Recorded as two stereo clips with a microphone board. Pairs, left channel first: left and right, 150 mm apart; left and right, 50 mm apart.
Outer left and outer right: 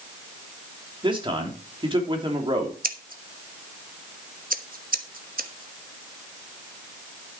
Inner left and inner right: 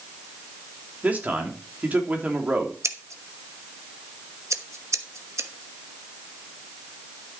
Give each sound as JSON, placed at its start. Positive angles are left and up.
{"t": 1.0, "sound": "a man speaking", "side_deg": -35, "distance_m": 3.0}
{"t": 2.8, "sound": "scissors", "side_deg": -75, "distance_m": 1.1}